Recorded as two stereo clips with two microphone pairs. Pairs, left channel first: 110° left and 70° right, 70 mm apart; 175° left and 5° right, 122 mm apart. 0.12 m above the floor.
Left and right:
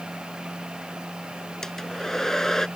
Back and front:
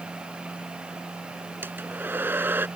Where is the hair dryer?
40° left.